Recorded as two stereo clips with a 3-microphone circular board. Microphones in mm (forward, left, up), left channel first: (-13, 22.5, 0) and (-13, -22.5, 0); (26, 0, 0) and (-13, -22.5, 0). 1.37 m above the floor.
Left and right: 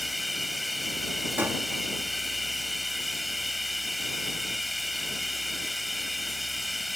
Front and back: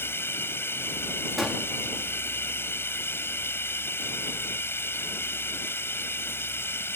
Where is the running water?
Straight ahead.